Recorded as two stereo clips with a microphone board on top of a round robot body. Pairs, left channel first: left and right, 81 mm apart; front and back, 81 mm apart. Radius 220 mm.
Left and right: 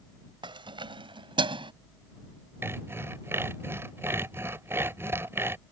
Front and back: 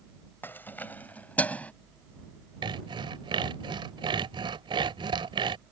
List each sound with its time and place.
0.4 s keys jangling: 65° right; by 1.7 s 75° right
2.6 s sawing: 155° right